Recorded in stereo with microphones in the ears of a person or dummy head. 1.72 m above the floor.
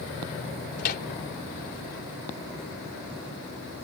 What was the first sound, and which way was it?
A microwave, 50° left (ahead or behind).